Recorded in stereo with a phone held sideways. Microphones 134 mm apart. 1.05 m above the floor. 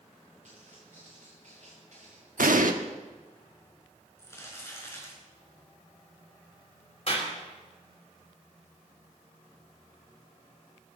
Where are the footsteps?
65° right (ahead or behind), 7 m.